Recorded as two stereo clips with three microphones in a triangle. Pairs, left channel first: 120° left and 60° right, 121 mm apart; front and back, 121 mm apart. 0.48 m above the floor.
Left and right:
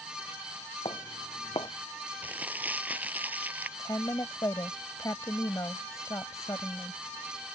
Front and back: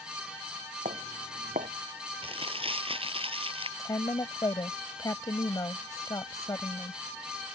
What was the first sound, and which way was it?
Footsteps, 170° left.